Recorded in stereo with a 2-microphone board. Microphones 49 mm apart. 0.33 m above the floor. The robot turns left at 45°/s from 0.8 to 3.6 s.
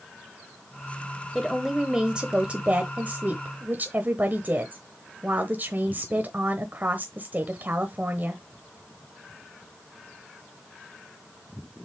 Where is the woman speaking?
5° left, 1.1 m; by 8.4 s 95° right, 1.1 m.